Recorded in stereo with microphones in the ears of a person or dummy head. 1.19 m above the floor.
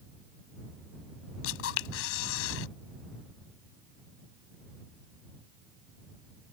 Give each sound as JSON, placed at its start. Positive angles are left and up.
{"t": 1.4, "sound": "a camera shutter", "side_deg": 80}